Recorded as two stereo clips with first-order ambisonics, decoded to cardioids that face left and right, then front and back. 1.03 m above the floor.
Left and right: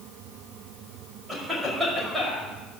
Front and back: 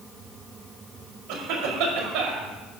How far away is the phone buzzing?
No phone buzzing in this recording.